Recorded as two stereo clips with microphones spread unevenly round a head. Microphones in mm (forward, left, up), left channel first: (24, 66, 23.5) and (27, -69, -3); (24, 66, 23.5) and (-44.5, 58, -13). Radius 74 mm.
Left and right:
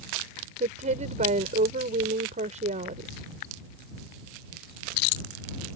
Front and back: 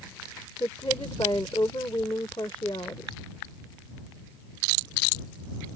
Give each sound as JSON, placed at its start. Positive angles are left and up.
{"t": 0.6, "sound": "a woman speaking", "azimuth_deg": -50}